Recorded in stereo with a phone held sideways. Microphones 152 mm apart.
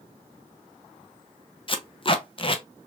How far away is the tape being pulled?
About 0.5 m.